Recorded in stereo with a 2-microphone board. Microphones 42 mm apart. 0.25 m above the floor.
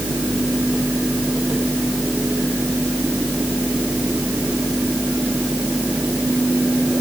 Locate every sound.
Only background noise.